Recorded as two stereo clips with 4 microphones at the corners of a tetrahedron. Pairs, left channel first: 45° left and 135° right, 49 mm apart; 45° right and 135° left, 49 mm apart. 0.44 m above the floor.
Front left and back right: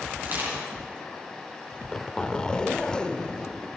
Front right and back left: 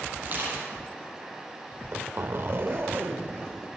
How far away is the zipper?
About 0.7 m.